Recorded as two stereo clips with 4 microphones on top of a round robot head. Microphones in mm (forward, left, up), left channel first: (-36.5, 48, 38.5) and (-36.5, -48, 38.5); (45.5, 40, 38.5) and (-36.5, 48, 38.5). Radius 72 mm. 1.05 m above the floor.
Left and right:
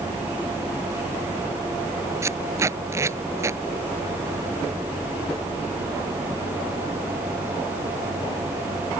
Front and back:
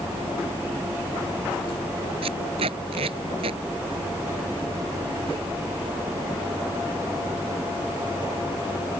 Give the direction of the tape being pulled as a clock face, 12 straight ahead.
5 o'clock.